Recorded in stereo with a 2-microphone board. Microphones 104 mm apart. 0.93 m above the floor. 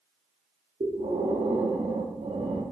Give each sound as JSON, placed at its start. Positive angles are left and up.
{"t": 0.8, "sound": "breathing", "side_deg": -70, "distance_m": 0.5}